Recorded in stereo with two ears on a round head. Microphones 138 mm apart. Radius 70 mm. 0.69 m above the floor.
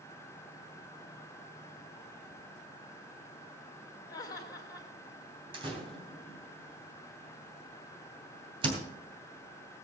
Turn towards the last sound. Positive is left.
turn(degrees=-35)  # may be behind; listen again after turning